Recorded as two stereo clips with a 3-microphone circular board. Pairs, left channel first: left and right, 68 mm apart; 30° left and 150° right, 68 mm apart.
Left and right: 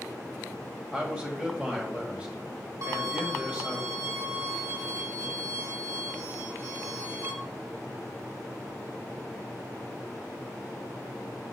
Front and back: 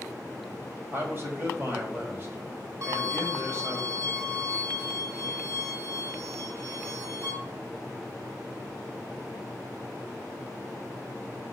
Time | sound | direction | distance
0.9 | a man speaking | 145° right | 1.6 m
2.8 | a violin | 115° right | 2.5 m